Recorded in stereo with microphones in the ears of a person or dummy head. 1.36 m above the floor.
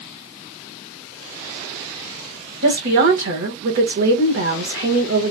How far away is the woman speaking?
About 1.6 m.